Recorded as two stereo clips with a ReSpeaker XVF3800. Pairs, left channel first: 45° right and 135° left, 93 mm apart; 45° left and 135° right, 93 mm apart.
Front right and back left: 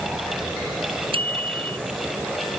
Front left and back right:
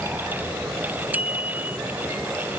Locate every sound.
1.1 s a bicycle bell: 150° left